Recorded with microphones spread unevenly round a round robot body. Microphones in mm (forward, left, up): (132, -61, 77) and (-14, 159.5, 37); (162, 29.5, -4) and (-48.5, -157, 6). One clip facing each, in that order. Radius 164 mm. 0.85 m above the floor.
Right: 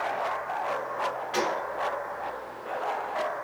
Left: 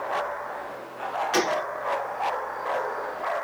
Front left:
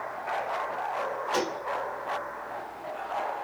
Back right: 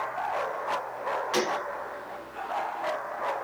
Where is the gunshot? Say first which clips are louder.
Left 5 dB, back right 2 dB; 170° left, 0.6 m.